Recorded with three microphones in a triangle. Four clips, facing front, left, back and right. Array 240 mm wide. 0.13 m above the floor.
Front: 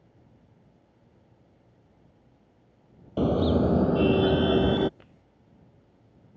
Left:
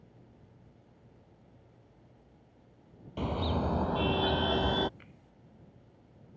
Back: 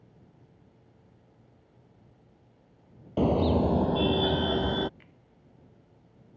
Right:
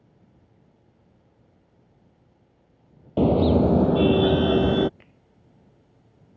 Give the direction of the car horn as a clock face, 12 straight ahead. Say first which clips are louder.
Right 14 dB, front 1 dB; 3 o'clock.